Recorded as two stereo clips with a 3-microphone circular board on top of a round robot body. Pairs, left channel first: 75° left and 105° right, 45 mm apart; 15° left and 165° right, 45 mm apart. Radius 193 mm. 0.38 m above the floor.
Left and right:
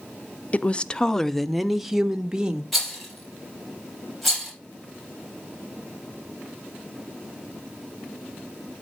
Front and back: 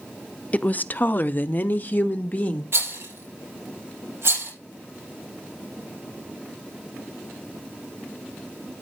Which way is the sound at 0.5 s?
45° left.